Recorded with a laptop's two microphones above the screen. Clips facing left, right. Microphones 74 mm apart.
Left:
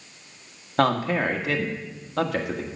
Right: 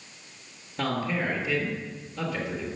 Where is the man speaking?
70° left (ahead or behind), 1.6 m.